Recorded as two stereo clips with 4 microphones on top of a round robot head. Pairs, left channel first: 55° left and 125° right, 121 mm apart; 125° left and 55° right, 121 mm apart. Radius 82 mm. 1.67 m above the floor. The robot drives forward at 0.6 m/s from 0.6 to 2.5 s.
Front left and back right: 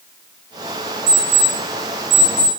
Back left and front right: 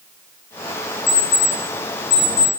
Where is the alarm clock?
170° right, 2.5 m.